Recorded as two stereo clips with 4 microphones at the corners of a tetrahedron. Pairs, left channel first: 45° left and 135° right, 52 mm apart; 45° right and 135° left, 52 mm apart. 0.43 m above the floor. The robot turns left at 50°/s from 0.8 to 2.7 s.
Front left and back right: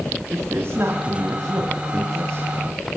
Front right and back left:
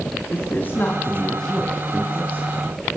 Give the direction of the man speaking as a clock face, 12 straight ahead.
3 o'clock.